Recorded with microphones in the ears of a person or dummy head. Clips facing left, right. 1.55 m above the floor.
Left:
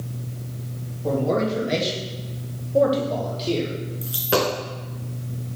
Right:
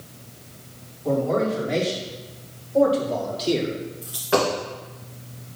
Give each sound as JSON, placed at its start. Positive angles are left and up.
{"t": 1.0, "sound": "a man speaking", "side_deg": 70, "distance_m": 3.5}
{"t": 4.0, "sound": "a dropped coin", "side_deg": 30, "distance_m": 2.5}